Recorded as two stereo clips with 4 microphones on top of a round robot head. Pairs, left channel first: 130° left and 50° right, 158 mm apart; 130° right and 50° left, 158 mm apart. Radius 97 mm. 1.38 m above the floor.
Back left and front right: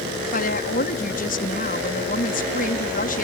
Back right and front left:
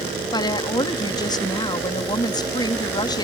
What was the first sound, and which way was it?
A woman speaking, 165° left.